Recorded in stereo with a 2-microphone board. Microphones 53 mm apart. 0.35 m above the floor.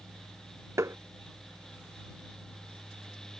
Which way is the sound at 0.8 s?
70° right (ahead or behind).